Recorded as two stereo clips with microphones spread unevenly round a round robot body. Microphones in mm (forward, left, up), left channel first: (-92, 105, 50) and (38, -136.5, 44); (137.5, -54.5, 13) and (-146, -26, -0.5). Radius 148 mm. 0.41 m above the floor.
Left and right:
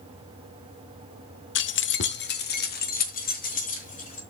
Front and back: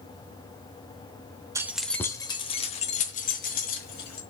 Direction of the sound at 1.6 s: 105° left.